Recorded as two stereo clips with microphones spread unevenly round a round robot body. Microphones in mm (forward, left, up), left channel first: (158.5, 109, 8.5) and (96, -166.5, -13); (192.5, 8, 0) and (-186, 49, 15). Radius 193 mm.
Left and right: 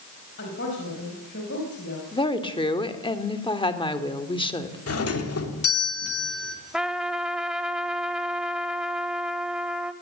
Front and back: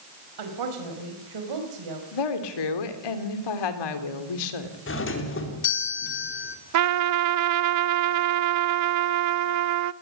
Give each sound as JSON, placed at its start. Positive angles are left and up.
{"t": 0.4, "sound": "a woman speaking", "azimuth_deg": 145, "distance_m": 5.5}
{"t": 2.1, "sound": "a woman speaking", "azimuth_deg": 5, "distance_m": 3.0}
{"t": 4.9, "sound": "a doorbell", "azimuth_deg": 45, "distance_m": 3.5}
{"t": 6.7, "sound": "a trumpet", "azimuth_deg": 165, "distance_m": 0.5}